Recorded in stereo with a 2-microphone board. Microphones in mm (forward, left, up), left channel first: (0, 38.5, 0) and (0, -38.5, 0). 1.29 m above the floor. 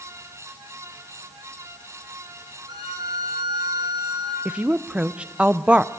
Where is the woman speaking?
15° right (ahead or behind), 0.7 m.